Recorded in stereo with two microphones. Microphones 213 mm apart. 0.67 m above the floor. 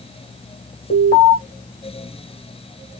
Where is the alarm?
50° left (ahead or behind), 3.5 m.